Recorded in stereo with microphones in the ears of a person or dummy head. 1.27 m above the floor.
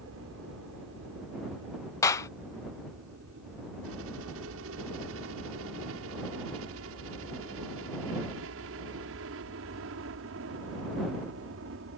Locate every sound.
0.0 s a helicopter: 75° right (ahead or behind); by 12.0 s 65° right (ahead or behind)
2.0 s a clap: 20° left (ahead or behind)